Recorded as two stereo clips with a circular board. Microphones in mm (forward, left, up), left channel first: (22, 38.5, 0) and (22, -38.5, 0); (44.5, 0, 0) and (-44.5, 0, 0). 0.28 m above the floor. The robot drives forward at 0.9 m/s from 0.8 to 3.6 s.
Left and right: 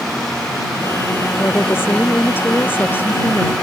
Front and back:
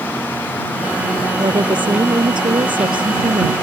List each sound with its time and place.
1.4 s a woman speaking: 150° left; by 3.5 s 155° left